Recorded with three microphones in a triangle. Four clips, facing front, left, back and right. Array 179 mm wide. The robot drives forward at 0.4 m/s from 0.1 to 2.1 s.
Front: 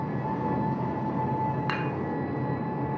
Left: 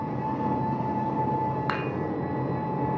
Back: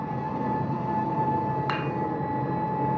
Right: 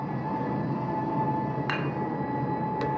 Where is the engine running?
80° left, 3 m; by 3.0 s 95° left, 3 m.